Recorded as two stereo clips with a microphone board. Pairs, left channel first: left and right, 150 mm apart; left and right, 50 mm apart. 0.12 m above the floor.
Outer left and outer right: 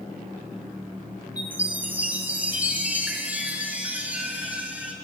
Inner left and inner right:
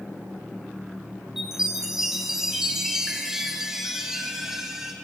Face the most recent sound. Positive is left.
turn(degrees=-10)  # may be behind; listen again after turning